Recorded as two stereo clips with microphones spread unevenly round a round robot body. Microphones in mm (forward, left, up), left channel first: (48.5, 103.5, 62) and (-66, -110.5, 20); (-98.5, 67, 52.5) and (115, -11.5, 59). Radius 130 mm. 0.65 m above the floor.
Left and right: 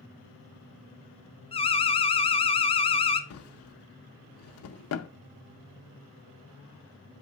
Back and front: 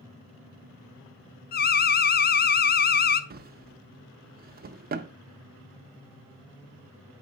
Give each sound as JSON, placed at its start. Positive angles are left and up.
{"t": 1.5, "sound": "an alarm", "azimuth_deg": 130, "distance_m": 0.5}
{"t": 3.3, "sound": "a drawer", "azimuth_deg": 30, "distance_m": 0.5}